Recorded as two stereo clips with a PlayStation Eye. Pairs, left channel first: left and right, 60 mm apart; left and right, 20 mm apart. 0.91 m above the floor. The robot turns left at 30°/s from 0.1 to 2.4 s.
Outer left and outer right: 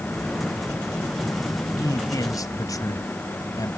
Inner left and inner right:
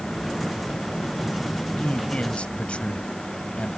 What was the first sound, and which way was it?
A man speaking, 75° left (ahead or behind).